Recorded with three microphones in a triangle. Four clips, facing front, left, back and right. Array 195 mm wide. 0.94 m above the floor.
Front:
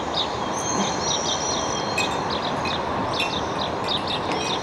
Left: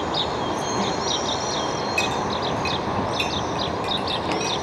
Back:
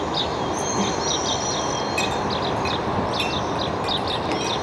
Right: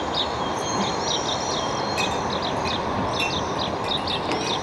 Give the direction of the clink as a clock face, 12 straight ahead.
6 o'clock.